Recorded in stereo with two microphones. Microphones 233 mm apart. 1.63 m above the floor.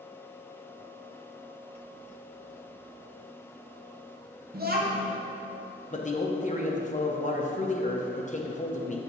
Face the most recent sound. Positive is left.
turn(degrees=30)  # may be behind; listen again after turning